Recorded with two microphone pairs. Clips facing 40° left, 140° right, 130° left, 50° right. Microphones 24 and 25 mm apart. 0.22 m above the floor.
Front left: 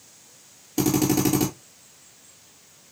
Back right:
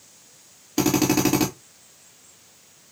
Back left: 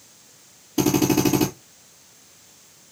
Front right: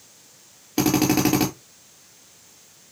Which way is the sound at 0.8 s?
85° right.